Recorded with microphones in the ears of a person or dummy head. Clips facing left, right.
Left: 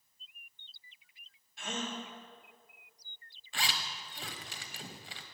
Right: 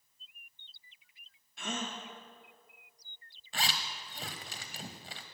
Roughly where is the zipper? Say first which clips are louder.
Right 2 dB; right.